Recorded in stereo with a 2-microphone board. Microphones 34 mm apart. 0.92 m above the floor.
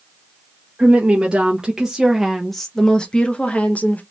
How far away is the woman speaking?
About 1.3 m.